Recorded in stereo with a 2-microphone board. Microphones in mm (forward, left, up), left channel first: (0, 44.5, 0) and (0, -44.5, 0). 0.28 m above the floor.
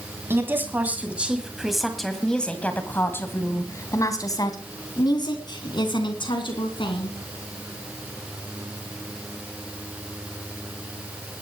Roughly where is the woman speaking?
Right.